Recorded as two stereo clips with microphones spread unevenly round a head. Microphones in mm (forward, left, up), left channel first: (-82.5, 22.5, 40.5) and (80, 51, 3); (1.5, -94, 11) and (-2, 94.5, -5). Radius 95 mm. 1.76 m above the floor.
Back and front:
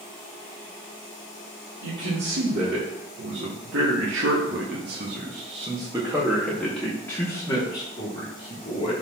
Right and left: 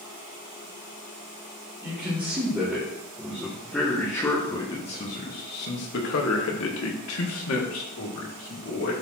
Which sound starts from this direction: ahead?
A man speaking, at 1.8 s.